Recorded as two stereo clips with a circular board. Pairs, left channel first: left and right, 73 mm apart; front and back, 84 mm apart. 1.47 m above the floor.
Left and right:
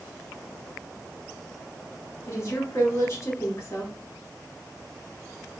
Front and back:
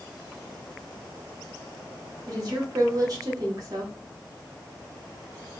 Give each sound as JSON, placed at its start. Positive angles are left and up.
{"t": 2.3, "sound": "a woman speaking", "azimuth_deg": 140, "distance_m": 1.5}